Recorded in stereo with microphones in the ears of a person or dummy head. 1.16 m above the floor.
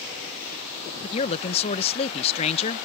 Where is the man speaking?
35° left (ahead or behind).